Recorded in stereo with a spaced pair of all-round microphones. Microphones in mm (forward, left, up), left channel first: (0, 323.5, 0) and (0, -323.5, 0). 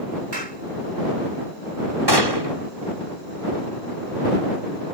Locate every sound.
0.3 s a clap: 70° right (ahead or behind)
2.1 s a gunshot: 35° right (ahead or behind)